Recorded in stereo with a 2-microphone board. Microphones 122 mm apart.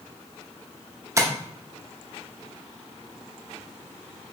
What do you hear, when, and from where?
1.2 s tapping: 25° right (ahead or behind), 0.6 m